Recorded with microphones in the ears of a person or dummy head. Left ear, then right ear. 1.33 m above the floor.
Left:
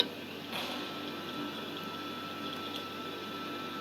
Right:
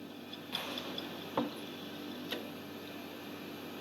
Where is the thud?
5° left (ahead or behind), 4 m.